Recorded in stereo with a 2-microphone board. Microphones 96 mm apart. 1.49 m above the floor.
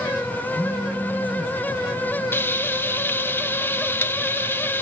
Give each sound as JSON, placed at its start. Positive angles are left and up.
{"t": 0.5, "sound": "a phone buzzing", "side_deg": 25, "distance_m": 7.0}
{"t": 2.3, "sound": "frying", "side_deg": 20, "distance_m": 1.3}